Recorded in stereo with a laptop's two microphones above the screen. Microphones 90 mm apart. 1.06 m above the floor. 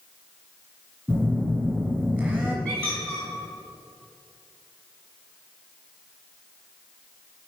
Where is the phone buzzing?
10° right (ahead or behind), 1.6 m.